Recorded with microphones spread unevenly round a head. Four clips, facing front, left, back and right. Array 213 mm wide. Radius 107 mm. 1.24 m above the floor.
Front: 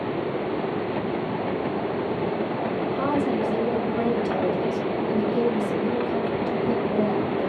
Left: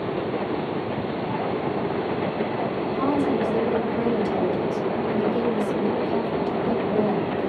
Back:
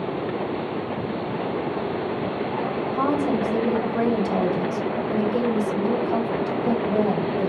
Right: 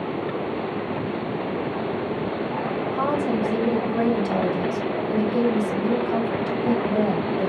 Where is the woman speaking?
150° right, 1.2 m.